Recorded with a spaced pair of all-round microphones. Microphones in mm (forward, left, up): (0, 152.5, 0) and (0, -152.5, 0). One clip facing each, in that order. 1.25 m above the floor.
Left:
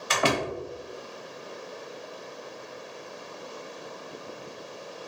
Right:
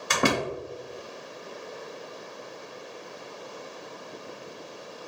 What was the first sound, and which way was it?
A door slam, 55° right (ahead or behind).